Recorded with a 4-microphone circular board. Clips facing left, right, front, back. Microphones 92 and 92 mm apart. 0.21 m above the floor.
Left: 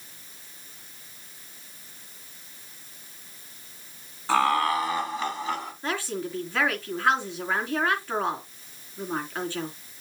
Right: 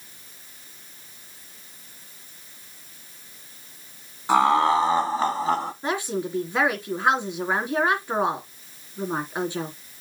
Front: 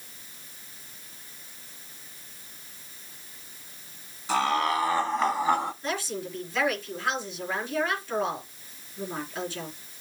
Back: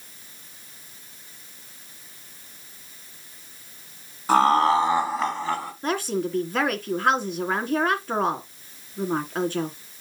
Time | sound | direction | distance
4.3 | laughter | 160° right | 1.8 m
5.8 | a woman speaking | 160° right | 3 m